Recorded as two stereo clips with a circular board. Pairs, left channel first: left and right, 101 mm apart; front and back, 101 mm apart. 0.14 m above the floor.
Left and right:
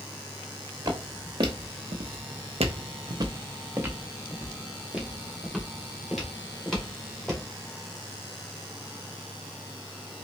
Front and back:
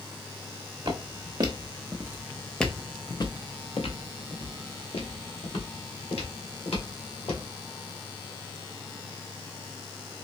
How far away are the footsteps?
About 1.2 m.